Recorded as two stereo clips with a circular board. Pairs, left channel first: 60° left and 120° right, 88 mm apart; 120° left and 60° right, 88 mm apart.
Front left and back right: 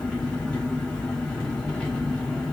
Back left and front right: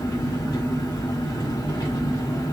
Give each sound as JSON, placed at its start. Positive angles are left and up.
{"t": 0.0, "sound": "an engine running", "azimuth_deg": 140, "distance_m": 1.4}